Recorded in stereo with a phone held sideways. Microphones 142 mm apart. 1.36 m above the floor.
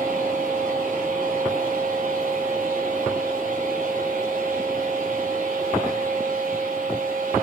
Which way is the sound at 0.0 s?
80° right.